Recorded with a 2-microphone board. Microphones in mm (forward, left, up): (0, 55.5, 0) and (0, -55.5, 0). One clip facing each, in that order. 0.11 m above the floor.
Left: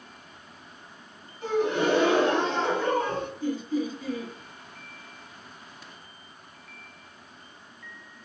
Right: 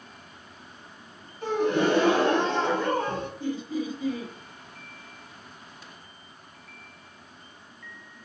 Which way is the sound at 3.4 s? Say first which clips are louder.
Left 3 dB; 20° right (ahead or behind).